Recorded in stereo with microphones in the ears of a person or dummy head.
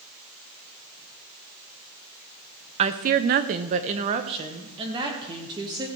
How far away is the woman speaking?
About 0.6 m.